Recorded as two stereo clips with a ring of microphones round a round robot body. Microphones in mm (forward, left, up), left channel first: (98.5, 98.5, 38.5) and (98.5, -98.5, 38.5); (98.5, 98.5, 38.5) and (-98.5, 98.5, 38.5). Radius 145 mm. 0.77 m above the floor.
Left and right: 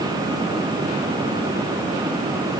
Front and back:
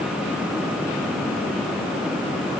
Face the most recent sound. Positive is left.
No sound to turn to.